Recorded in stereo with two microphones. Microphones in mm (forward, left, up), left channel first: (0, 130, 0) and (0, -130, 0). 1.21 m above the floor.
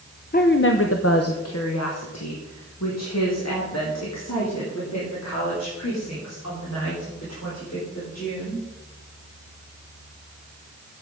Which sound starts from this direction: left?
A woman speaking, at 0.3 s.